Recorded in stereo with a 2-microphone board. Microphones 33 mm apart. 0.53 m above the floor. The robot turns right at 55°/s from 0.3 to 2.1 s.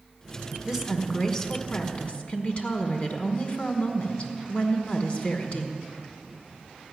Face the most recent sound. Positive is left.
turn(degrees=55)